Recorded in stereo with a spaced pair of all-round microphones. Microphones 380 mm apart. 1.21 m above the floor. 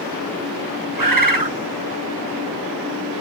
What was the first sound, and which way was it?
A bird, 60° right (ahead or behind).